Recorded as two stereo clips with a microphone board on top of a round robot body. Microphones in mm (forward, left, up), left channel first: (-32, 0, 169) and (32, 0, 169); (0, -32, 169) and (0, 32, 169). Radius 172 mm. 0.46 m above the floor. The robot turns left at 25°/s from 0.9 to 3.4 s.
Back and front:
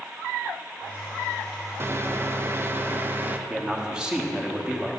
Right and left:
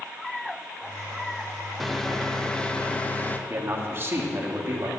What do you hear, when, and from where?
1.8 s a microwave: straight ahead, 0.6 m; by 3.4 s 40° right, 0.6 m
3.5 s a man speaking: 70° left, 1.4 m